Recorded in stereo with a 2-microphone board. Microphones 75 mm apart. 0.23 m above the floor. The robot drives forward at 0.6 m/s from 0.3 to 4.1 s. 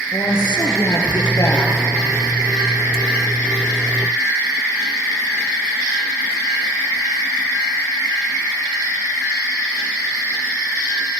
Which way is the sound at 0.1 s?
65° left (ahead or behind).